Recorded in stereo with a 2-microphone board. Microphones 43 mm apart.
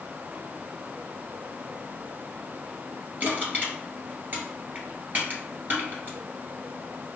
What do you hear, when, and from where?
3.2 s crushing: 40° right (ahead or behind), 2.0 m